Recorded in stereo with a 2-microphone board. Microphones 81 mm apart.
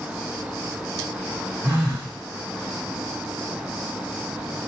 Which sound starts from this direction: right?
A phone buzzing, at 1.6 s.